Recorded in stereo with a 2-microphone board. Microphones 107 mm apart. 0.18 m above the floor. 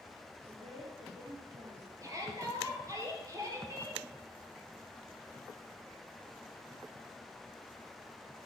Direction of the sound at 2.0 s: 30° right (ahead or behind).